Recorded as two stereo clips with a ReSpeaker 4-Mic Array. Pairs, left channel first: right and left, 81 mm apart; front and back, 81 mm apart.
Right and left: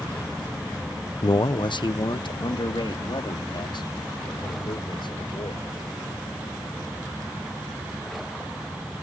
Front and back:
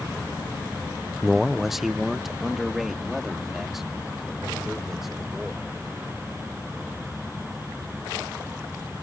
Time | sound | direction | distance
1.2 | a man speaking | 95° right | ?